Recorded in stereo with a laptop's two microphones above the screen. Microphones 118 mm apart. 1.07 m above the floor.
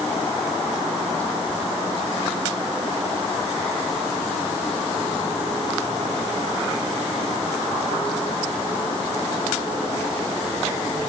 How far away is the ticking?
No ticking in this recording.